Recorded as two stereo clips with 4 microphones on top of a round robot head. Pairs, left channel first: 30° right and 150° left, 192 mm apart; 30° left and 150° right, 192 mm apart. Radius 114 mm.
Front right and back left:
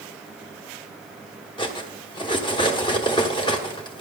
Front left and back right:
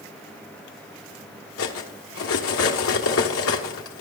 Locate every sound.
1.6 s cutlery clinking: 35° left, 1.1 m